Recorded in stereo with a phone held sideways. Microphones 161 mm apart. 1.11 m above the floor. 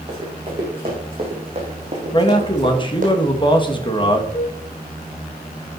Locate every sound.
0.1 s running footsteps: 30° right (ahead or behind), 5.5 m; by 3.1 s 55° right (ahead or behind), 3.5 m
2.1 s a man speaking: 30° left (ahead or behind), 1.9 m
4.3 s a flute: 40° left (ahead or behind), 2 m